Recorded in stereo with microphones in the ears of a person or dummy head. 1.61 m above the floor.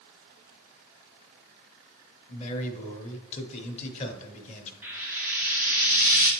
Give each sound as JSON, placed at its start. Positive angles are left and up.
{"t": 2.3, "sound": "a man speaking", "side_deg": 40, "distance_m": 1.0}
{"t": 4.8, "sound": "frying", "side_deg": -10, "distance_m": 1.0}